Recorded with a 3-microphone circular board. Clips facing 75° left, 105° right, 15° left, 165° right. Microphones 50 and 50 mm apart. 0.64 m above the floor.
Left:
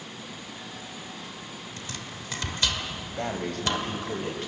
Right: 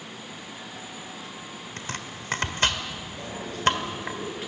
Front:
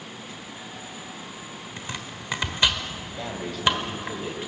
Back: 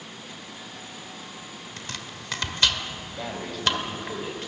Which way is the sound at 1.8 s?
60° right.